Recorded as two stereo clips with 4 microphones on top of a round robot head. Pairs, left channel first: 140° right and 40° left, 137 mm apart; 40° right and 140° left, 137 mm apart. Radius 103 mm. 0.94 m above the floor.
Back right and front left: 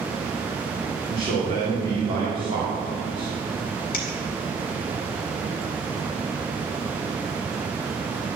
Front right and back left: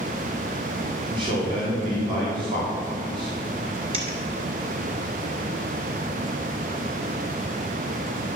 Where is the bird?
I don't hear a bird.